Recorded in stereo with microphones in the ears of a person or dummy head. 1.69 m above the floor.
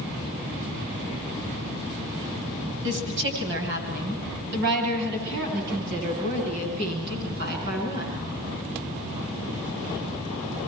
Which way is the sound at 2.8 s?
65° right (ahead or behind).